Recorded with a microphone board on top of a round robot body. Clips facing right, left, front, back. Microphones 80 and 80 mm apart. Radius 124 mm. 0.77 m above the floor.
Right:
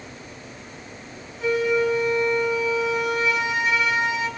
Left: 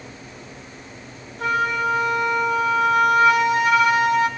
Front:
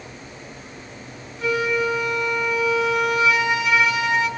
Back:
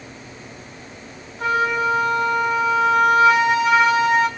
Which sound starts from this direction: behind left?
A flute, at 1.4 s.